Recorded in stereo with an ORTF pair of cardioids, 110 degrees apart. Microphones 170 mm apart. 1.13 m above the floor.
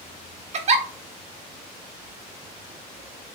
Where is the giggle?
45° right, 0.5 m.